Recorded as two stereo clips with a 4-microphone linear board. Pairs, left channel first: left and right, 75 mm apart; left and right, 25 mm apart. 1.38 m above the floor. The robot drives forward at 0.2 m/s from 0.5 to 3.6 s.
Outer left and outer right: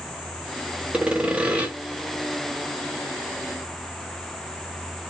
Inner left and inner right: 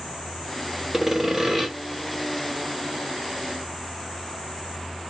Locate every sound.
0.9 s sawing: 15° right (ahead or behind), 0.9 m; by 1.7 s 20° right (ahead or behind), 0.9 m